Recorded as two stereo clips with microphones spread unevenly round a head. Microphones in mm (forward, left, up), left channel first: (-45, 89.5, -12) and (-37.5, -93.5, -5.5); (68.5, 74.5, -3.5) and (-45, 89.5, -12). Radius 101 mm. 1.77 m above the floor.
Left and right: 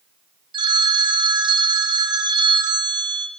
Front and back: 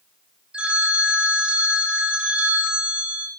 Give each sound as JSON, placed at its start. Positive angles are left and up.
{"t": 0.5, "sound": "a phone ringing", "azimuth_deg": -105, "distance_m": 0.7}